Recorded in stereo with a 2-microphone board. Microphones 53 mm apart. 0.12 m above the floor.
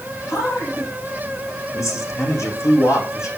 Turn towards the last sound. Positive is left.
turn(degrees=75)  # may be behind; listen again after turning